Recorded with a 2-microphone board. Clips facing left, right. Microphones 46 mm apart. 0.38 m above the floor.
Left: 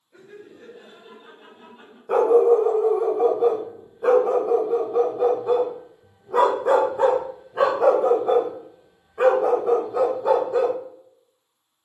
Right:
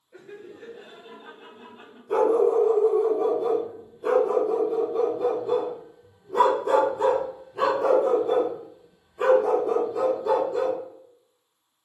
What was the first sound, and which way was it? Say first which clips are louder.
Laughter: right 1 dB; 25° right (ahead or behind).